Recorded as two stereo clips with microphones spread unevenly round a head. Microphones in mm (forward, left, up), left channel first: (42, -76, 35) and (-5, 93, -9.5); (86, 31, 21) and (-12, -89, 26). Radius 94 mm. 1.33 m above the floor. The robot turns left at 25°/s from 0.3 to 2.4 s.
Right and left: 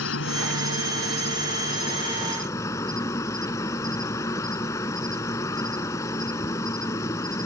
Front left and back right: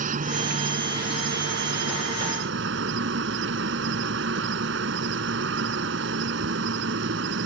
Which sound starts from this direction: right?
An insect, at 0.0 s.